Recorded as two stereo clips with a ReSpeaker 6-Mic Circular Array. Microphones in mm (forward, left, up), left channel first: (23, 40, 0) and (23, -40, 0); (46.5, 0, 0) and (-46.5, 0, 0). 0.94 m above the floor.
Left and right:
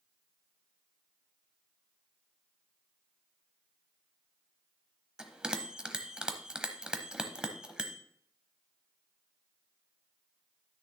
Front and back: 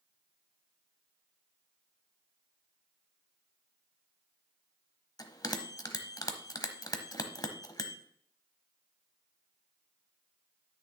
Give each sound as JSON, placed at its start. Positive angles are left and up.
{"t": 5.2, "sound": "a bell", "azimuth_deg": -15, "distance_m": 1.0}